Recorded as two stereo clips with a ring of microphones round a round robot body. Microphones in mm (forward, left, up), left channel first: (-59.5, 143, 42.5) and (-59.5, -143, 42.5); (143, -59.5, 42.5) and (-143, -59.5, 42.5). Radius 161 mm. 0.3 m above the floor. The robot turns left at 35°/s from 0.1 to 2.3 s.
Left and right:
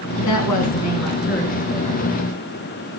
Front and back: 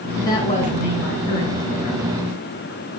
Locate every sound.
0.2 s a woman speaking: 80° left, 4 m; by 2.0 s 15° left, 4 m